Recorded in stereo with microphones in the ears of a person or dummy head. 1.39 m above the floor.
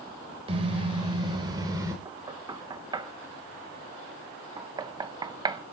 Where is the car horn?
35° right (ahead or behind), 4 m; by 1.9 s 20° right (ahead or behind), 3 m.